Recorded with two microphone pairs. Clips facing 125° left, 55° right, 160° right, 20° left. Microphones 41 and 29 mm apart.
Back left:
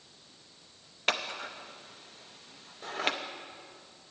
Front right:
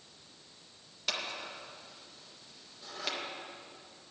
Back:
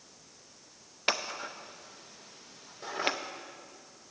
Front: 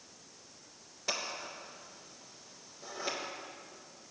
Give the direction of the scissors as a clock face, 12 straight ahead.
6 o'clock.